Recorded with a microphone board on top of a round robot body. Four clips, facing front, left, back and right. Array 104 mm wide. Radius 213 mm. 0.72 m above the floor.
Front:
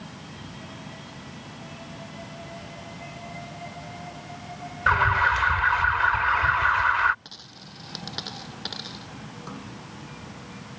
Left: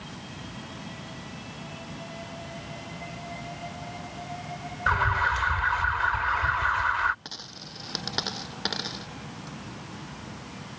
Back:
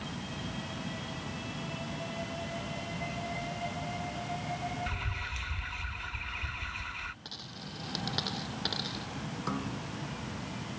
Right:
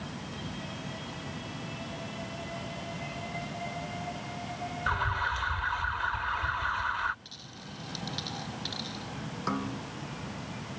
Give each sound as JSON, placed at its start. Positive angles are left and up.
{"t": 4.9, "sound": "an alarm", "azimuth_deg": 20}
{"t": 7.2, "sound": "a dropped coin", "azimuth_deg": 85}
{"t": 9.5, "sound": "a snare drum", "azimuth_deg": -105}